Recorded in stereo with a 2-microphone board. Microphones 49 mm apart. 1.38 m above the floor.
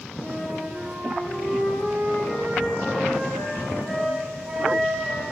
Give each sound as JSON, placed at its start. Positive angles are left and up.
{"t": 0.2, "sound": "a flute", "side_deg": -10, "distance_m": 1.3}